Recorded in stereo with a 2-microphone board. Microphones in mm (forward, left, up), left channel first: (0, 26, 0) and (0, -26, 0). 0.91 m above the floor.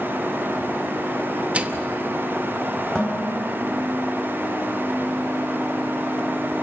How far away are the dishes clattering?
About 3.5 m.